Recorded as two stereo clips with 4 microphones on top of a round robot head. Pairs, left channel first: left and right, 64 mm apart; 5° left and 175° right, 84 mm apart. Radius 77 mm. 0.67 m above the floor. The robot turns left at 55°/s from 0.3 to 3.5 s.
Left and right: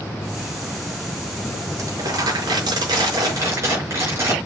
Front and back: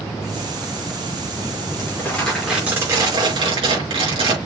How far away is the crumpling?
About 5.5 m.